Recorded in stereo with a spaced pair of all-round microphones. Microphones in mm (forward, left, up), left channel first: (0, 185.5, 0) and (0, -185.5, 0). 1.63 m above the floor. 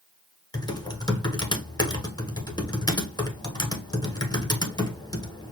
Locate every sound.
0.5 s typing on a keyboard: 10° left (ahead or behind), 1.0 m